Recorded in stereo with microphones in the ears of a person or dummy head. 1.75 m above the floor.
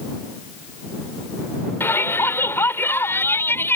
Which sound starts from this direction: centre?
A shout, at 1.8 s.